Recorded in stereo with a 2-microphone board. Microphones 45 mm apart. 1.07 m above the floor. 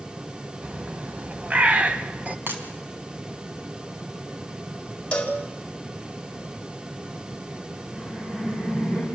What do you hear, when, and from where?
0.6 s a bird: 30° right (ahead or behind), 1.1 m
2.5 s breaking glass: 55° right (ahead or behind), 4 m
5.1 s a cowbell: 25° left (ahead or behind), 4.5 m
7.9 s laughter: 15° right (ahead or behind), 5 m